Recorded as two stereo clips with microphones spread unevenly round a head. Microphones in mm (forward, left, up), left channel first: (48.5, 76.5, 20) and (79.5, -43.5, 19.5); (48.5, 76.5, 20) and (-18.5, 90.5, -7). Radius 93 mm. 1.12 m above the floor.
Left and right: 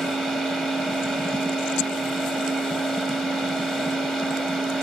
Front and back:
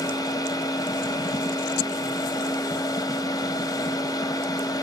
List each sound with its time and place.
0.0 s a machine running: 20° left, 0.8 m